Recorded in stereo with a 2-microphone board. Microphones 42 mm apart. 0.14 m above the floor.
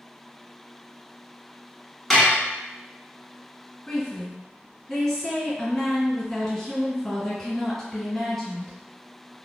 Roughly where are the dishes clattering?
Centre.